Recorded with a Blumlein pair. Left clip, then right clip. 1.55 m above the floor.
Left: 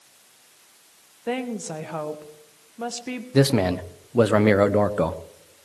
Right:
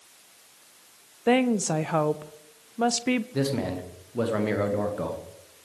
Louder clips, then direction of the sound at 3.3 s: Left 8 dB; 30° left.